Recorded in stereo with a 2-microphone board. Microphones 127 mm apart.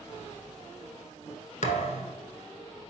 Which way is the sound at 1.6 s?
75° left (ahead or behind).